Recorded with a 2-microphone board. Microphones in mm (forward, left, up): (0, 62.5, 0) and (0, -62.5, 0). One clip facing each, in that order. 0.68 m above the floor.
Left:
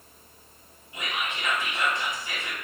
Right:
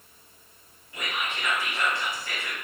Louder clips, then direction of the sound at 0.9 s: Even; 20° left (ahead or behind).